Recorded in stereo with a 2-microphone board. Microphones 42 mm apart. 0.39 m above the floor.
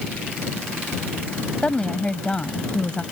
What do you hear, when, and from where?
1.6 s a woman speaking: 20° left (ahead or behind)